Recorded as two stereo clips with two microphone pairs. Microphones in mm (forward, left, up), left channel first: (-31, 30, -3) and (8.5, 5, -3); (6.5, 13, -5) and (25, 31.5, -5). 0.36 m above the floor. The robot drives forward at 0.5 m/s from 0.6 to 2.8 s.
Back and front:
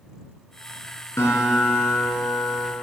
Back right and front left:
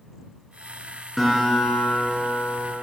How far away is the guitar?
About 3 m.